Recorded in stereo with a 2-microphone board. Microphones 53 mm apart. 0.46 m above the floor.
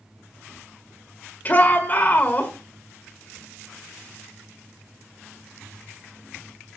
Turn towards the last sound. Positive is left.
turn(degrees=30)  # may be behind; listen again after turning